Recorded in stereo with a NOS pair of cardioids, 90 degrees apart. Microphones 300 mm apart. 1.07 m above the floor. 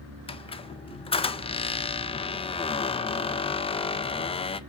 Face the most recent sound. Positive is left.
turn(degrees=20)